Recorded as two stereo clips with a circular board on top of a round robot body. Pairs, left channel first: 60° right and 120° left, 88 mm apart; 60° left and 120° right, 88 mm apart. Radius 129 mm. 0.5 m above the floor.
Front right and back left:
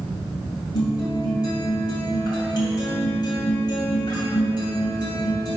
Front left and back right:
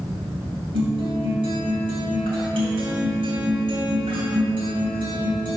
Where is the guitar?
100° right, 2 m.